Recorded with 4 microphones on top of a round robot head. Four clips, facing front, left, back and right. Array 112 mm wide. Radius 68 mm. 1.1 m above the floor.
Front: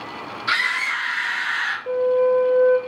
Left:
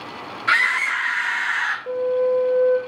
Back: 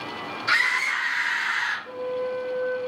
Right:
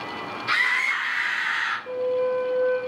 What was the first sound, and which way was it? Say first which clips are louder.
A scream: left 5 dB, front 1 dB; 70° left.